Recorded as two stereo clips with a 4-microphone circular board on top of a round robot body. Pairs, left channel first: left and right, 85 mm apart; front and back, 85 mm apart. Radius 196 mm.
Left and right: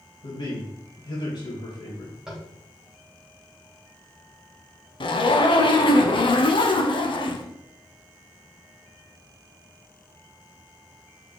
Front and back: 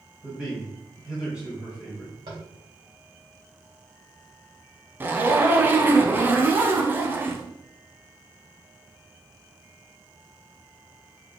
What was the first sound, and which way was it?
A man speaking, 105° left.